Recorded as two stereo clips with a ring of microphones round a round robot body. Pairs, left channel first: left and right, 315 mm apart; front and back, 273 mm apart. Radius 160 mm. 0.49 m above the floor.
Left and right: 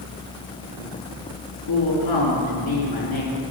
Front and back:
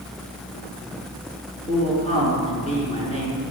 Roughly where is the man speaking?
Left.